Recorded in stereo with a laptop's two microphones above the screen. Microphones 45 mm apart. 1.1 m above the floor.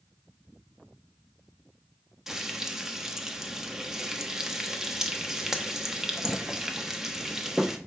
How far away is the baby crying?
I don't hear a baby crying.